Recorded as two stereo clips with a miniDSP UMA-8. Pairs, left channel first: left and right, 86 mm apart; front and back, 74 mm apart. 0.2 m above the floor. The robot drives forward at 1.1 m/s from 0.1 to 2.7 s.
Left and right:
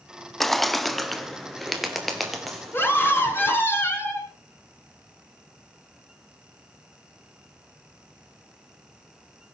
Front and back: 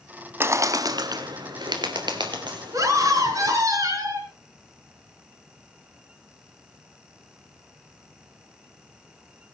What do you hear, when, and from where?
0.4 s a bird: 175° left, 0.6 m; by 3.6 s straight behind, 3 m
2.7 s a scream: 150° left, 3 m